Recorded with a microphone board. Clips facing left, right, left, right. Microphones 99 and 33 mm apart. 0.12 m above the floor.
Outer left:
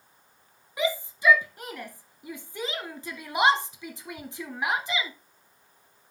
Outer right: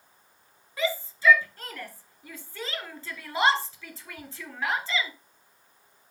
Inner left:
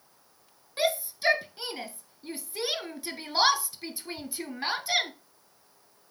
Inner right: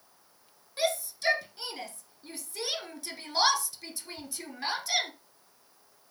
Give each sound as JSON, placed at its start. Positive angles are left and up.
{"t": 0.8, "sound": "a shout", "side_deg": 15, "distance_m": 1.3}